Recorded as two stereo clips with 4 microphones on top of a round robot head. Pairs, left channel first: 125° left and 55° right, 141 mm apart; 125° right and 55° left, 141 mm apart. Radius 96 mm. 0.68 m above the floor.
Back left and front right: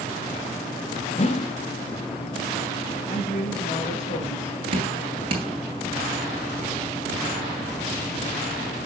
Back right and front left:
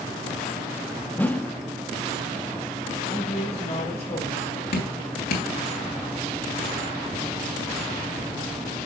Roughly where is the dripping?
Right.